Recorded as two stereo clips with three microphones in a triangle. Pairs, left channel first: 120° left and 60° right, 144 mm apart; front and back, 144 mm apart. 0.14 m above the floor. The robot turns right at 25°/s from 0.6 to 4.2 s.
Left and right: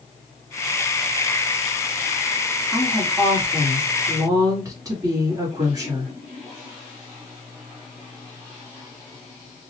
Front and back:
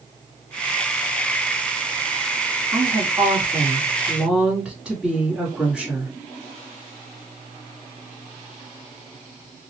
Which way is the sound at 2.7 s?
140° right.